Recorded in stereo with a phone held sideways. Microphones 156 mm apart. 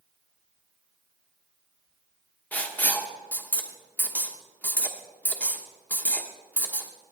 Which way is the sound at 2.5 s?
10° left (ahead or behind).